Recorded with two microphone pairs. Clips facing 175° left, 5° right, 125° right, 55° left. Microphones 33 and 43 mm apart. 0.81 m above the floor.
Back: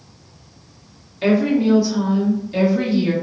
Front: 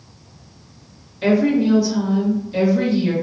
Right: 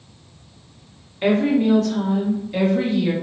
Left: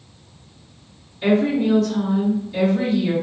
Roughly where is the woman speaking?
Behind right.